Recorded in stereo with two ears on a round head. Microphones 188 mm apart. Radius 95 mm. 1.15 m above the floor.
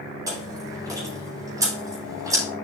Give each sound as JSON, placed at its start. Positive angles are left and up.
{"t": 0.3, "sound": "chewing", "side_deg": -20, "distance_m": 3.5}